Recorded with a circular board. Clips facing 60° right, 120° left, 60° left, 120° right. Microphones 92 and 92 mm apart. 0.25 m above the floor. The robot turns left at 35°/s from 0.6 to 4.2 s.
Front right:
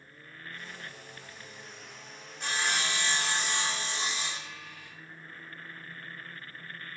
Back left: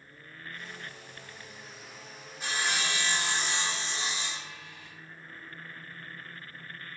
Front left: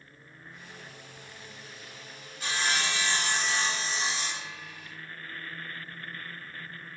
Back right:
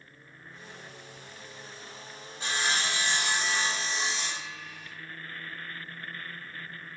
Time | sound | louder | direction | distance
2.4 | sawing | even, even | 155° right | 1.0 m